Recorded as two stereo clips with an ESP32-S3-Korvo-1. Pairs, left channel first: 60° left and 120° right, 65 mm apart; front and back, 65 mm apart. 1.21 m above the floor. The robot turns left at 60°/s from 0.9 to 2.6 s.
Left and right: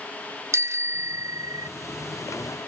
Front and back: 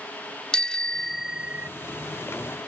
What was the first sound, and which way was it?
A bicycle bell, 80° right.